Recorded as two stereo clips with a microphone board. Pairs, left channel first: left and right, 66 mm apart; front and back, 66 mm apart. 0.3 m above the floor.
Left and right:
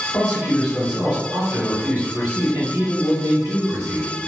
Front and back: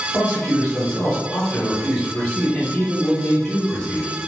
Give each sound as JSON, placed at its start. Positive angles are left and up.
{"t": 0.1, "sound": "a man speaking", "azimuth_deg": 50, "distance_m": 1.1}